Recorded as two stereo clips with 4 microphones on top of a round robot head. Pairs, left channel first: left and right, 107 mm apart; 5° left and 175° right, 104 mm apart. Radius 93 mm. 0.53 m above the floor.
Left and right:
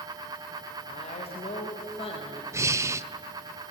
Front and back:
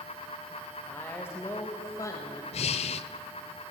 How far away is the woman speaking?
About 3 m.